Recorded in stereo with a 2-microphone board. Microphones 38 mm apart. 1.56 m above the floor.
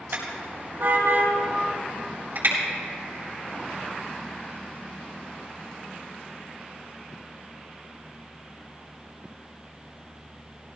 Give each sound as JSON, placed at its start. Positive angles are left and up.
{"t": 0.1, "sound": "a car horn", "side_deg": -75, "distance_m": 4.5}